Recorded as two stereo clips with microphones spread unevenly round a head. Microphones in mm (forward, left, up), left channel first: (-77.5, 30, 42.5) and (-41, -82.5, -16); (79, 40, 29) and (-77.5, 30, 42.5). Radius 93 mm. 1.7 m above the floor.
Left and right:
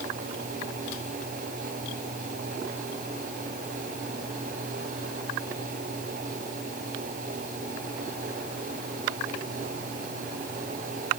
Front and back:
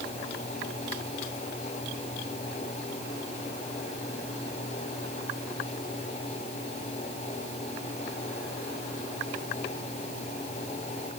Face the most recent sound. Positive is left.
No sound to turn to.